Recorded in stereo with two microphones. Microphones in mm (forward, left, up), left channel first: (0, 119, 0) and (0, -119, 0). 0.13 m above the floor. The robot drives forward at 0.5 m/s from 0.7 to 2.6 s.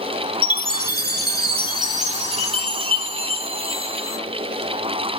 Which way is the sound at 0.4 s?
40° right (ahead or behind).